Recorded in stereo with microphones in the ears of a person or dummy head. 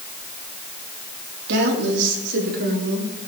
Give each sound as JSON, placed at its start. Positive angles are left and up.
{"t": 1.5, "sound": "a woman speaking", "side_deg": -65, "distance_m": 3.5}